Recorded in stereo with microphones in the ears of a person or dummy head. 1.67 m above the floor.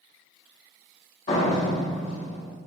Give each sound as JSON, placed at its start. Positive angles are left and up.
{"t": 1.3, "sound": "a door slam", "side_deg": 35, "distance_m": 1.2}